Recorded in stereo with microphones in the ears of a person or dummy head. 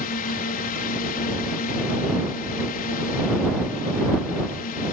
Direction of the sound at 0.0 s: 45° left (ahead or behind).